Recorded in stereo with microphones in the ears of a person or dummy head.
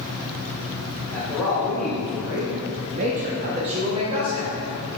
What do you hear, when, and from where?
1.1 s a man speaking: 5° left (ahead or behind), 1.7 m; by 4.7 s 30° right (ahead or behind), 1.9 m